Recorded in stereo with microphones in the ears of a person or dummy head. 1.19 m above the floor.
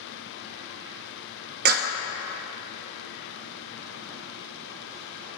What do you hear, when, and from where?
1.6 s a clap: 50° right (ahead or behind), 0.6 m